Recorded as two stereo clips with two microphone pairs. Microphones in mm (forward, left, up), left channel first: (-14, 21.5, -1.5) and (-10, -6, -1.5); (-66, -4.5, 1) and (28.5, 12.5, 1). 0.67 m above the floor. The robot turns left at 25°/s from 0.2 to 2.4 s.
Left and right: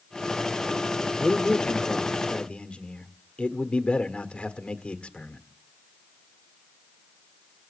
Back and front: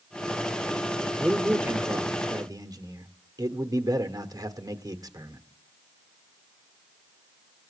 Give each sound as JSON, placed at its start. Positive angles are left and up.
{"t": 1.2, "sound": "a man speaking", "azimuth_deg": 90, "distance_m": 1.6}